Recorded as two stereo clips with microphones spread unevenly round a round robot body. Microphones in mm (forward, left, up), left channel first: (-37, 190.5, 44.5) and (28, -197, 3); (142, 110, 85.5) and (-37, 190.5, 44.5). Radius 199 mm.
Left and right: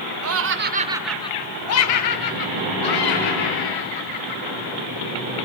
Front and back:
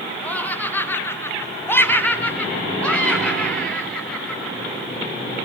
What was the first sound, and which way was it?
Laughter, 115° right.